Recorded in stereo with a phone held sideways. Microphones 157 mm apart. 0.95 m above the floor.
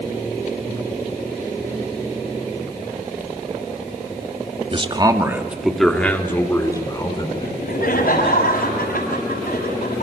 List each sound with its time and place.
4.7 s a man speaking: 35° right (ahead or behind), 2 m; by 8.4 s 35° left (ahead or behind), 5.5 m
7.4 s laughter: 70° left (ahead or behind), 6.5 m